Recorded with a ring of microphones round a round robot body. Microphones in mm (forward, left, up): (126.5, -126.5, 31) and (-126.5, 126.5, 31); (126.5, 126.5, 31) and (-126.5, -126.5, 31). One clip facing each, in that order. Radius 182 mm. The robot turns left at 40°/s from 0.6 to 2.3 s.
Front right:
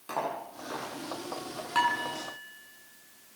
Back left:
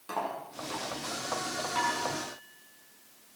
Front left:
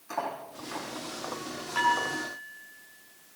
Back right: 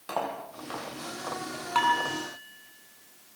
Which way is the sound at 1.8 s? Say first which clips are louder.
Front right 1 dB, back right 2 dB; 115° right.